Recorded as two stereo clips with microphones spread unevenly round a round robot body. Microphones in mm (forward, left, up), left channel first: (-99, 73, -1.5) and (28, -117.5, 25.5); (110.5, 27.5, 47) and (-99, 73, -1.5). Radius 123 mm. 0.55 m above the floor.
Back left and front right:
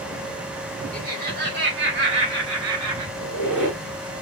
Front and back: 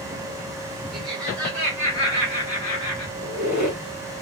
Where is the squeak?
70° right, 2.5 m.